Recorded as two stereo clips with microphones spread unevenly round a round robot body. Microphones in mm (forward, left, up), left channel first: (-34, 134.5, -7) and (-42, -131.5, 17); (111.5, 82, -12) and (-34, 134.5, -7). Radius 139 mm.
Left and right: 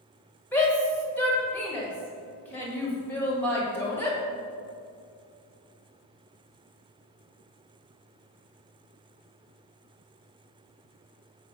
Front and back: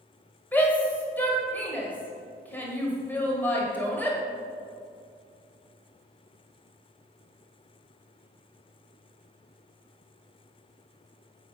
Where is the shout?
30° left, 1.3 m.